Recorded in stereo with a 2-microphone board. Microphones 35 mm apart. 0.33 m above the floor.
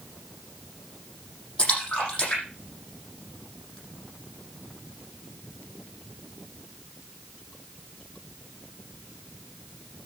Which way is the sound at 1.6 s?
25° left (ahead or behind).